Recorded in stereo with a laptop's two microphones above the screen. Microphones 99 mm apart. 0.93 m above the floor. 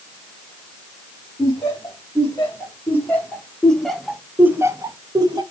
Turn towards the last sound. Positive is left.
turn(degrees=-45)  # may be behind; listen again after turning